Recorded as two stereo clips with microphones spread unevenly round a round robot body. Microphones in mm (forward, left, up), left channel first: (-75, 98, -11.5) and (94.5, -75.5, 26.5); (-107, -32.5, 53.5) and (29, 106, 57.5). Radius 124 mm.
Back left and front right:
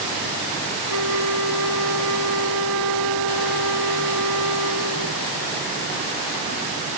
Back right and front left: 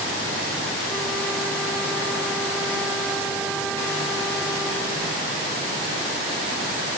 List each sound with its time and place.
0.9 s a flute: 45° right